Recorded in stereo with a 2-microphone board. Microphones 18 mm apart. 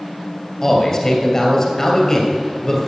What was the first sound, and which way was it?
A man speaking, 20° left (ahead or behind).